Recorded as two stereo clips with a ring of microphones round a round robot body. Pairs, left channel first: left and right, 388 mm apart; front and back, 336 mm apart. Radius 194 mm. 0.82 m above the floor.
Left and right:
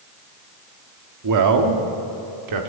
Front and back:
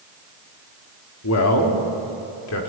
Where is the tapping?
I don't hear tapping.